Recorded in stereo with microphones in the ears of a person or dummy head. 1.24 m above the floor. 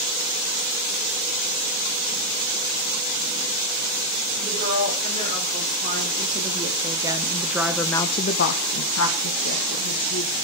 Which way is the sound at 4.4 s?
40° right (ahead or behind).